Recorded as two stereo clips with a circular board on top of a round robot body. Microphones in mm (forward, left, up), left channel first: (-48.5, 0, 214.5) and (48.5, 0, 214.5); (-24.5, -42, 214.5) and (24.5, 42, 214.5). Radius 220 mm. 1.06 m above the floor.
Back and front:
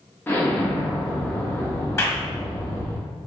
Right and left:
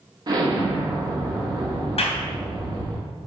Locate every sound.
0.3 s an explosion: 105° left, 1.4 m
2.0 s a clap: 115° right, 1.5 m